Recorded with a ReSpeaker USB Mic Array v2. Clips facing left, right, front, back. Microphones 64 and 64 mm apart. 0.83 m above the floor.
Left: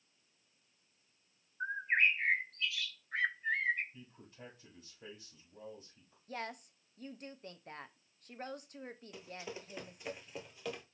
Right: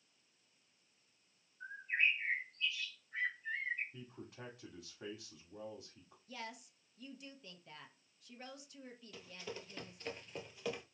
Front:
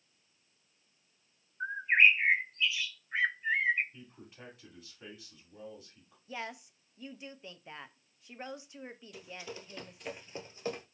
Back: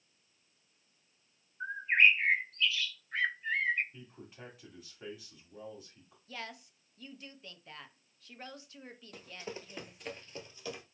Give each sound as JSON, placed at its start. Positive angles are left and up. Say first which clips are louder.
{"t": 1.6, "sound": "a bird", "louder": "left 5 dB, front 1 dB", "azimuth_deg": 75, "distance_m": 0.5}
{"t": 3.9, "sound": "a man speaking", "louder": "right 4 dB, back 1 dB", "azimuth_deg": -100, "distance_m": 2.0}
{"t": 6.3, "sound": "a woman speaking", "louder": "left 6 dB, front 3 dB", "azimuth_deg": 65, "distance_m": 0.6}
{"t": 9.1, "sound": "running footsteps", "louder": "even, back 3 dB", "azimuth_deg": 155, "distance_m": 1.2}